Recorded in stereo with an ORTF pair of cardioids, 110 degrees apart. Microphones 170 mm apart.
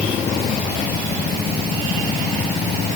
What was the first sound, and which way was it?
Only background noise.